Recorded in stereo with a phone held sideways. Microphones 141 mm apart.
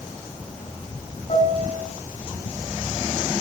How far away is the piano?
About 8.5 m.